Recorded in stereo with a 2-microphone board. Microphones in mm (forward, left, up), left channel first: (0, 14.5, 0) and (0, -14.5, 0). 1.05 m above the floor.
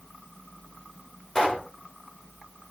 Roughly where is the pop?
Centre.